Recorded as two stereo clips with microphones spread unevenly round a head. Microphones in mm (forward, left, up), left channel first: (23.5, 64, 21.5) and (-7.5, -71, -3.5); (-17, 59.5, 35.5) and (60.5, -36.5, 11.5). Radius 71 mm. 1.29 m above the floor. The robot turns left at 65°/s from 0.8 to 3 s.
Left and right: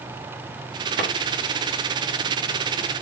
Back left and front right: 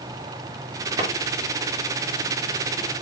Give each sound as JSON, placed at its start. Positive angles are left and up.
{"t": 1.0, "sound": "a drawer", "azimuth_deg": -115, "distance_m": 6.5}